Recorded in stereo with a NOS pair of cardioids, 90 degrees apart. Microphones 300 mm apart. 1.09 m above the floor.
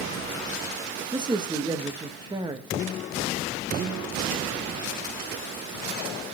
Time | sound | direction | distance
1.1 | a man speaking | 15° right | 1.1 m